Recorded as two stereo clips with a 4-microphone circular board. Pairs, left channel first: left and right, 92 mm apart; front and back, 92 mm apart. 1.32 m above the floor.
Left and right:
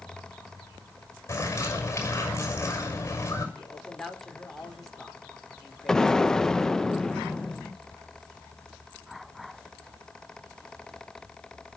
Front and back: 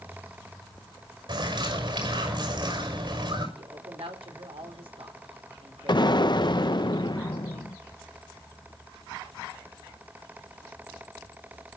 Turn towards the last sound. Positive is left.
turn(degrees=10)